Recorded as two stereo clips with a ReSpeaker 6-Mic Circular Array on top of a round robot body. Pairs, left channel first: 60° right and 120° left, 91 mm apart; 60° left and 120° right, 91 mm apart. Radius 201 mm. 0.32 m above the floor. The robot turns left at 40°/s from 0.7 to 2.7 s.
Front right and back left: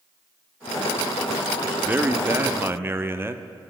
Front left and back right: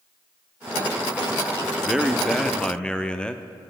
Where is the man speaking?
165° left, 0.9 m; by 3.7 s 130° left, 0.9 m.